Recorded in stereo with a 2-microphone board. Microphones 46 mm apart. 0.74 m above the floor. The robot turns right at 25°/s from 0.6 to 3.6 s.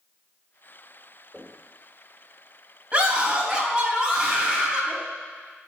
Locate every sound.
1.3 s knocking: 15° right (ahead or behind), 2.5 m; by 1.6 s 10° right (ahead or behind), 2.5 m
2.9 s a scream: 30° right (ahead or behind), 3.5 m; by 5.0 s 10° right (ahead or behind), 3.5 m